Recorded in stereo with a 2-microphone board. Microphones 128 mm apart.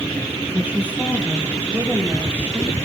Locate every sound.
0.5 s a woman speaking: 15° right (ahead or behind), 4 m